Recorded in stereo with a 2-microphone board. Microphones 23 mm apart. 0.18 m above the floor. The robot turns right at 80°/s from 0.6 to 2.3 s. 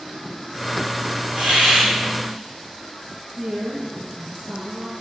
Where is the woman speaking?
80° right, 7 m.